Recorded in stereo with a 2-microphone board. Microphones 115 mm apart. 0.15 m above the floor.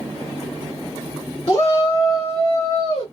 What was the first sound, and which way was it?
A shout, 50° left (ahead or behind).